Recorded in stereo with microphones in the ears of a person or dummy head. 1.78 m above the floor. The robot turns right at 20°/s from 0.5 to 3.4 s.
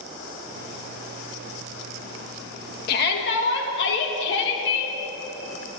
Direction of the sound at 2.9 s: 50° left (ahead or behind).